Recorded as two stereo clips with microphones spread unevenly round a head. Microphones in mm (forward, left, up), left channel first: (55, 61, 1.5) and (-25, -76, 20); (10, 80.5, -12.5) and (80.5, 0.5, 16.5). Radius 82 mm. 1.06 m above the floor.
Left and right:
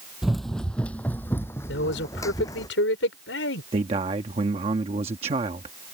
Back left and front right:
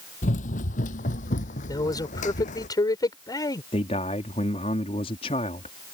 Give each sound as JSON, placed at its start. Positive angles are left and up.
{"t": 0.2, "sound": "running footsteps", "azimuth_deg": 155}
{"t": 1.7, "sound": "a man speaking", "azimuth_deg": 75}
{"t": 3.7, "sound": "a man speaking", "azimuth_deg": 180}